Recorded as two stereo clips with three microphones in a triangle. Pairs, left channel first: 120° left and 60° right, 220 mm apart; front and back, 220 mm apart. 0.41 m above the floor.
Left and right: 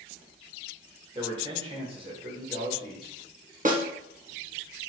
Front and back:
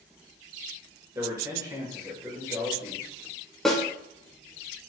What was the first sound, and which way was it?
A man speaking, 110° right.